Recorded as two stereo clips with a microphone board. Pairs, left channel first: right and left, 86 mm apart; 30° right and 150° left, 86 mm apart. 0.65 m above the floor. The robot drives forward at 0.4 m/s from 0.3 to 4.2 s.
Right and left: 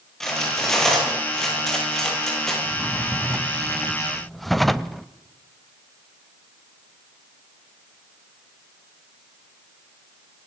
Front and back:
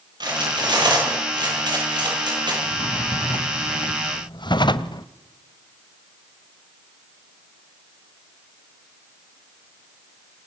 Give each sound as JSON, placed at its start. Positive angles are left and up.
{"t": 0.2, "sound": "cutlery clinking", "azimuth_deg": -175, "distance_m": 9.5}
{"t": 2.6, "sound": "a drawer", "azimuth_deg": 0, "distance_m": 1.7}